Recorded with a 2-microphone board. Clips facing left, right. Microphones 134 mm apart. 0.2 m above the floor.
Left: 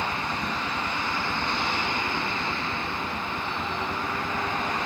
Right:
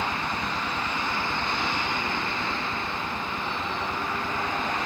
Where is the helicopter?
5° right (ahead or behind); by 4.9 s 15° left (ahead or behind).